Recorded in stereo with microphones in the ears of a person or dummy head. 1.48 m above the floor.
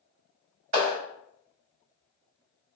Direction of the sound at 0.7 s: 60° right (ahead or behind).